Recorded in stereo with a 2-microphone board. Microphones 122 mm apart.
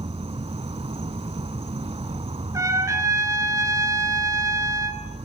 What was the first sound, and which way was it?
An insect, 60° right (ahead or behind).